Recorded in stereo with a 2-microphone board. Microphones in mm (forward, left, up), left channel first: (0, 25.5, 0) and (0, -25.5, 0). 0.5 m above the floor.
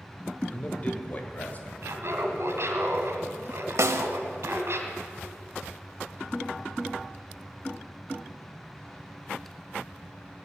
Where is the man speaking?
25° left (ahead or behind), 1.4 m; by 1.7 s 35° left (ahead or behind), 2.5 m.